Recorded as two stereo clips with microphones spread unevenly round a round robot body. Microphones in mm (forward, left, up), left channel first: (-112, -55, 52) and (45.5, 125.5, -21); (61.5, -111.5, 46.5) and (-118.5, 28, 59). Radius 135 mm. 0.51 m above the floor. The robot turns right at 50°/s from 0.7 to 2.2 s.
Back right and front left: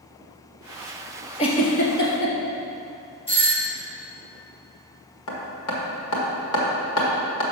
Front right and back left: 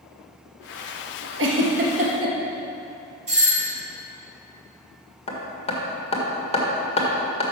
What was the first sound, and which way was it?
A giggle, 170° left.